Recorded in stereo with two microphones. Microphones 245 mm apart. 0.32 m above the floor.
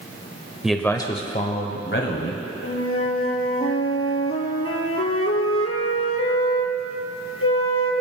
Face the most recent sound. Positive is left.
turn(degrees=65)  # may be behind; listen again after turning